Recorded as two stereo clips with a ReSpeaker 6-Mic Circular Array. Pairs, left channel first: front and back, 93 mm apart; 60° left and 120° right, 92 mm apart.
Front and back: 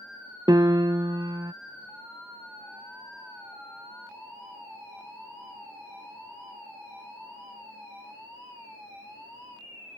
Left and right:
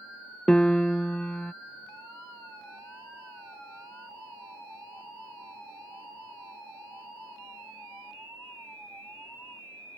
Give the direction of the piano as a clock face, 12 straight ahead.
7 o'clock.